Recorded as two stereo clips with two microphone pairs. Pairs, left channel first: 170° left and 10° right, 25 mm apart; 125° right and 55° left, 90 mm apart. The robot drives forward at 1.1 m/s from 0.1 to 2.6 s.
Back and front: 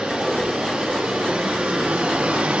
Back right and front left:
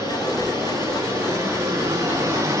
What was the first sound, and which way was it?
Running water, straight ahead.